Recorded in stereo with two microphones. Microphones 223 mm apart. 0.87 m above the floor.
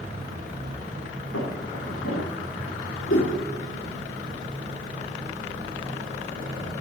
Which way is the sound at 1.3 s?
75° left (ahead or behind).